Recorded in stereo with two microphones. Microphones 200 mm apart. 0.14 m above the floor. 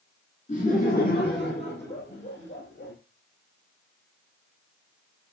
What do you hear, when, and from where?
0.5 s laughter: 35° left (ahead or behind), 2 m; by 2.9 s 70° left (ahead or behind), 4 m